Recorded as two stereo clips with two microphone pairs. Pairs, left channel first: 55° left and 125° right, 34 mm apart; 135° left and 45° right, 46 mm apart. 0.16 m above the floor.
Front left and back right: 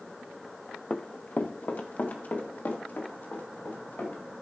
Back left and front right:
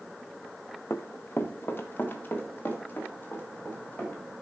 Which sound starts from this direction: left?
Running footsteps, at 0.9 s.